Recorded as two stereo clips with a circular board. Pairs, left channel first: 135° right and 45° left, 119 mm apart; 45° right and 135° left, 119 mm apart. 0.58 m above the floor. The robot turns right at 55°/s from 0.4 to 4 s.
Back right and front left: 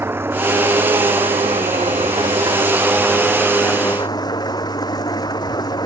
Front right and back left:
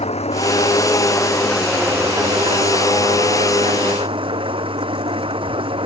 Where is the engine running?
25° right; by 5.9 s 175° left.